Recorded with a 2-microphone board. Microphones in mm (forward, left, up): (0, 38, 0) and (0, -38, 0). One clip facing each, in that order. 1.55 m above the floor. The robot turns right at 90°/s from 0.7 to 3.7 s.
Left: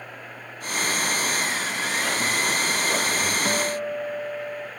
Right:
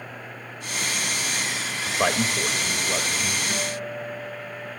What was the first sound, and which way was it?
A man speaking, 95° right.